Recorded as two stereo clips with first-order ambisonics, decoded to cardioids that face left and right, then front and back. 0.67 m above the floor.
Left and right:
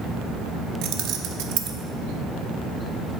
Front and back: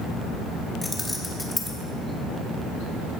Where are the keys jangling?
75° right, 0.9 m.